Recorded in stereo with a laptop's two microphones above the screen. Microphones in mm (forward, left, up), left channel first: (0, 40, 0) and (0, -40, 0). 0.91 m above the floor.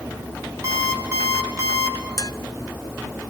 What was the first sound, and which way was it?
An alarm clock, 40° right (ahead or behind).